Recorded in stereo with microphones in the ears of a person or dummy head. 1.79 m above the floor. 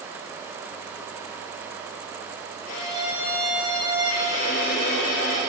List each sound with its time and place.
2.7 s a violin: 80° left, 7.5 m